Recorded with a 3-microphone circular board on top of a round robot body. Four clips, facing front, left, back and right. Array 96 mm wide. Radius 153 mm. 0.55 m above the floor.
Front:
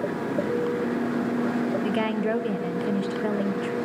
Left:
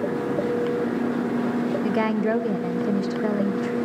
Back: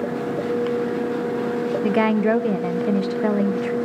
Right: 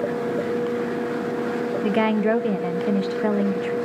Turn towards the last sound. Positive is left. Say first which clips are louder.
# right 5 dB, back 6 dB
turn(degrees=-155)